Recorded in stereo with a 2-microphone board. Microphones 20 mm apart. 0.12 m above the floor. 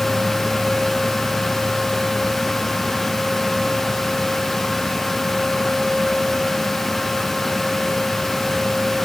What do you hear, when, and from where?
Only background noise.